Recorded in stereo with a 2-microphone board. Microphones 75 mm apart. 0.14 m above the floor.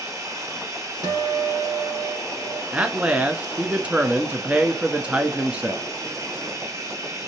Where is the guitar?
55° right (ahead or behind), 3 m.